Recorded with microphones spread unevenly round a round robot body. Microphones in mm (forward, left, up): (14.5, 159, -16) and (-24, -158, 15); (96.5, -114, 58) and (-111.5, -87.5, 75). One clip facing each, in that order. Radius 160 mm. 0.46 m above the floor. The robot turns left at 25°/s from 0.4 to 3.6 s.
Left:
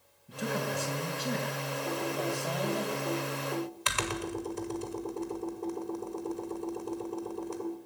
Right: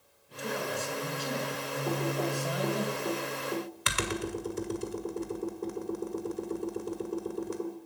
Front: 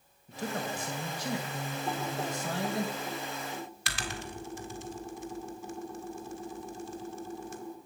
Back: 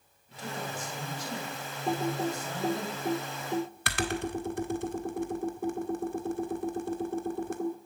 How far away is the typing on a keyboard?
About 1.6 m.